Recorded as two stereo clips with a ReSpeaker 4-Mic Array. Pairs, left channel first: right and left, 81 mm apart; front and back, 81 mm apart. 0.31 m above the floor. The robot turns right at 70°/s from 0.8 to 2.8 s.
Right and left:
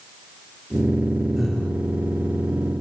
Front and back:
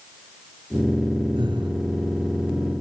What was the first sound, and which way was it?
Breathing, 170° left.